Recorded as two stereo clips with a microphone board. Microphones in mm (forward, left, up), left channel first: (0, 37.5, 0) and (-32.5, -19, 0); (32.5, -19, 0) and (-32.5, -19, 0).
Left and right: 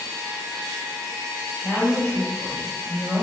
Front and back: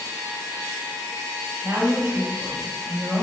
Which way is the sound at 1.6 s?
140° left.